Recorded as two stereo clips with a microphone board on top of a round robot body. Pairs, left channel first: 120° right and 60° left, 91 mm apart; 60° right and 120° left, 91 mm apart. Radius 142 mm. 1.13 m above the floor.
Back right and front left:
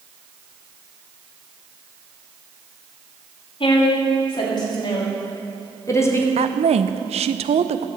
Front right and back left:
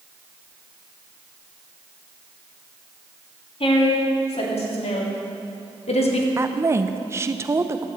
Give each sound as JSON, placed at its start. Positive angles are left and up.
{"t": 3.6, "sound": "a woman speaking", "azimuth_deg": -80, "distance_m": 3.5}
{"t": 6.4, "sound": "a woman speaking", "azimuth_deg": 55, "distance_m": 0.5}